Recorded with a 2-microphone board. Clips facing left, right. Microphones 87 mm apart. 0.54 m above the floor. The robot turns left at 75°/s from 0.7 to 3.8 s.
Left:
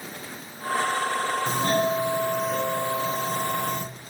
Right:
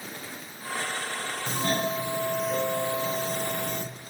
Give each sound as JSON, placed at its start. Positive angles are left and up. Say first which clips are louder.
{"t": 1.5, "sound": "a doorbell", "louder": "left 3 dB", "azimuth_deg": 75, "distance_m": 2.0}